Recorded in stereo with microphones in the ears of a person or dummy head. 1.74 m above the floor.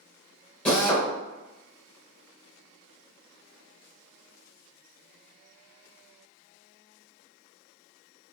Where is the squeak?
No squeak in this recording.